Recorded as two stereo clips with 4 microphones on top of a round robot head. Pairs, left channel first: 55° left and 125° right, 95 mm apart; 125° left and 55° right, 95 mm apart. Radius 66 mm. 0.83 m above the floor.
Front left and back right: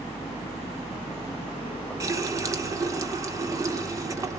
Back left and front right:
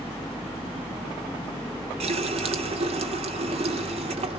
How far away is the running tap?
About 1.7 m.